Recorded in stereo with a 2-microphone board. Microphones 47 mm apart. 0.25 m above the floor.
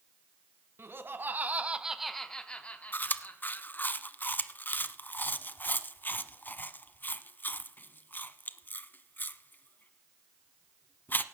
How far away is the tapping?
No tapping in this recording.